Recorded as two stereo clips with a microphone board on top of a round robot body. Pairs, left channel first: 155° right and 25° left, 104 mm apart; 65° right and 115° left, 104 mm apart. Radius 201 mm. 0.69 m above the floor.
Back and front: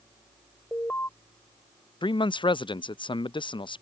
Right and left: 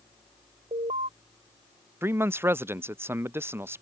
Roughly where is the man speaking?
Behind.